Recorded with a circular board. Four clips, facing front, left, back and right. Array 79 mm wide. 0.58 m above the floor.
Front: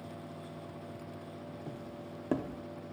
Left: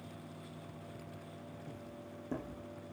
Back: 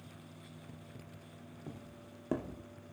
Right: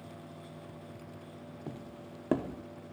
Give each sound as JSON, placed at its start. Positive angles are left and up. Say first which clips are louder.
{"t": 1.7, "sound": "footsteps", "louder": "right 4 dB, front 6 dB", "azimuth_deg": -80, "distance_m": 0.9}